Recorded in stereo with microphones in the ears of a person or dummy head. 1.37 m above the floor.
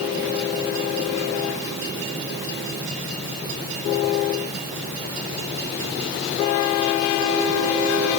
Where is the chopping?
I don't hear chopping.